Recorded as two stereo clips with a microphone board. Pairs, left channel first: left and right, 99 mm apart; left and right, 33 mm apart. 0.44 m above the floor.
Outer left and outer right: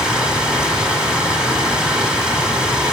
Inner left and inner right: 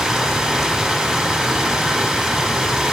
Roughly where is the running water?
Centre.